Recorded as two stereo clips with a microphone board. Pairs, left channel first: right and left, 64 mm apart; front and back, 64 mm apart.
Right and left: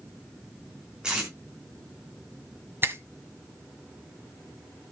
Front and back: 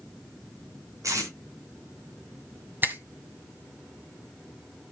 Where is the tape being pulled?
165° left, 3.5 m.